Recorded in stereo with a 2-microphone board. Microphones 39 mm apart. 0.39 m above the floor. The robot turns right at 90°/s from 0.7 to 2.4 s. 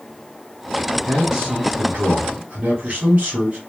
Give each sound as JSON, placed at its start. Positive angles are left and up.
{"t": 1.1, "sound": "a man speaking", "azimuth_deg": -175, "distance_m": 1.5}